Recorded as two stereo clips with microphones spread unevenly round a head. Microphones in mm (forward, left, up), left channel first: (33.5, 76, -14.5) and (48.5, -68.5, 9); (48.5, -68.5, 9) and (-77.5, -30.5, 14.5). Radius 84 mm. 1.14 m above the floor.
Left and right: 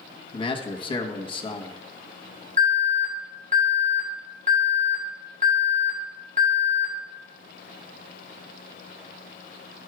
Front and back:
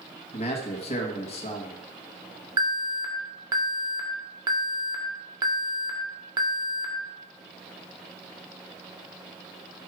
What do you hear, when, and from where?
0.3 s a man speaking: 40° left, 1.2 m
2.6 s an alarm: 135° right, 1.9 m